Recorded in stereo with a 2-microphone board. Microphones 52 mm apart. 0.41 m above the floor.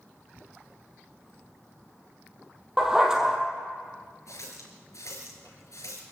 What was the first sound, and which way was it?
A dog barking, 10° right (ahead or behind).